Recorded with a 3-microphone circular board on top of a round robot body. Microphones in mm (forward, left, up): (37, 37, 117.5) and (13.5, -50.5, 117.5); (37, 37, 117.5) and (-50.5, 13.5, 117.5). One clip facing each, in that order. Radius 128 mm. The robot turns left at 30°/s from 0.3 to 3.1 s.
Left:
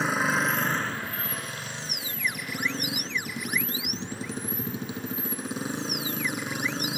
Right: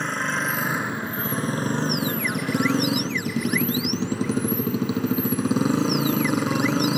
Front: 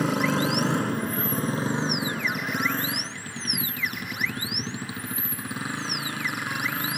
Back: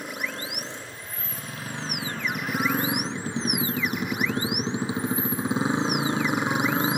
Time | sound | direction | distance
0.0 | a motorcycle | 10° right | ?